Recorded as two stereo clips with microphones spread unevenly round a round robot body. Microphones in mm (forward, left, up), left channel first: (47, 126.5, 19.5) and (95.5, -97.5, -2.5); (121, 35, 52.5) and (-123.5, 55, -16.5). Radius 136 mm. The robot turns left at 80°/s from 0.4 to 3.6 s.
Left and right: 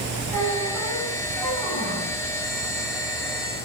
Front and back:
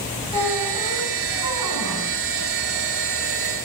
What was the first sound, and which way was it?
A squeak, 85° right.